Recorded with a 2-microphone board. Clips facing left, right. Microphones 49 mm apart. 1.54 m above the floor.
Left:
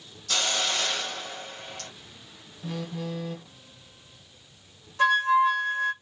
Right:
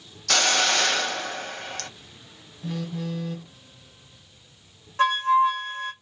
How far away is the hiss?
About 0.6 m.